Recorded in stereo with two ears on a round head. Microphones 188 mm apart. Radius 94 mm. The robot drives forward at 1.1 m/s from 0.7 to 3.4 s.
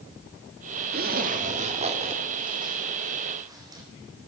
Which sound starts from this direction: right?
A zipper, at 0.9 s.